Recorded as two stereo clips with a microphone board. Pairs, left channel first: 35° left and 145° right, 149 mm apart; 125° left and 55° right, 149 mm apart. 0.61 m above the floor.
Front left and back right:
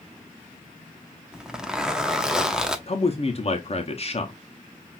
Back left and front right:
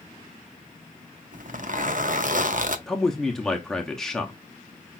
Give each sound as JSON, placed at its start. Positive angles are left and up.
{"t": 1.3, "sound": "a zipper", "azimuth_deg": -60, "distance_m": 0.6}
{"t": 2.9, "sound": "a man speaking", "azimuth_deg": 40, "distance_m": 0.7}